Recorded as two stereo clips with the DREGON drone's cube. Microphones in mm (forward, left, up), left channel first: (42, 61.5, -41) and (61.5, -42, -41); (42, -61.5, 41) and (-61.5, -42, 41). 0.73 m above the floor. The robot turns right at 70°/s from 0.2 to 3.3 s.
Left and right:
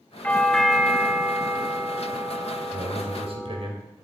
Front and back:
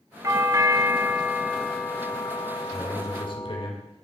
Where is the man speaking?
90° right, 3 m; by 3.8 s 50° right, 3 m.